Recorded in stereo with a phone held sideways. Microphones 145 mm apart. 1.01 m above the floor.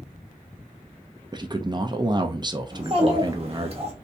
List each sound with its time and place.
1.3 s a man speaking: 30° right (ahead or behind), 0.5 m
2.7 s a child speaking: 45° right (ahead or behind), 1.4 m